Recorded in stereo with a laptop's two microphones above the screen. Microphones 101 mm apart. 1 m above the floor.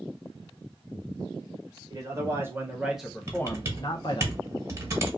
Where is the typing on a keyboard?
25° right (ahead or behind), 1.2 m.